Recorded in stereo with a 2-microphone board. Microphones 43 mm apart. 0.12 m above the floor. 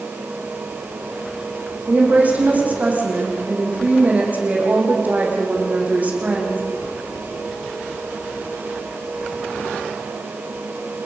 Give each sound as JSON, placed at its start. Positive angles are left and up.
{"t": 1.9, "sound": "a woman speaking", "side_deg": -35, "distance_m": 6.0}